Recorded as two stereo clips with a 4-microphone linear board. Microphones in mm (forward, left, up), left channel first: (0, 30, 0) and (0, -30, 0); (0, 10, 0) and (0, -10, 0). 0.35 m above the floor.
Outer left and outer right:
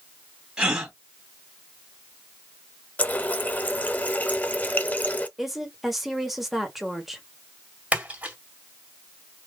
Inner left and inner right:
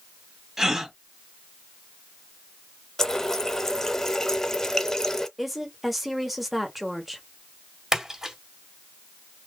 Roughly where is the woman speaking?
Centre.